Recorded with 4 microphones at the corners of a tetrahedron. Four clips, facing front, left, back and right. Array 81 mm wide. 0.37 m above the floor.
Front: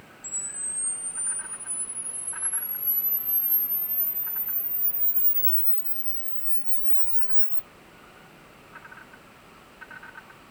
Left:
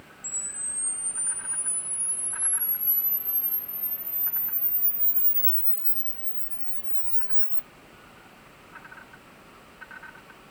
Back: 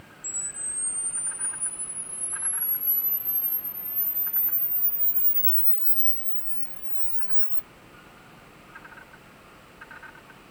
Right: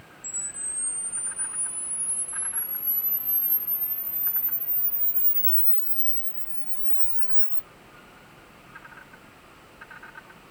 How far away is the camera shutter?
About 1.2 m.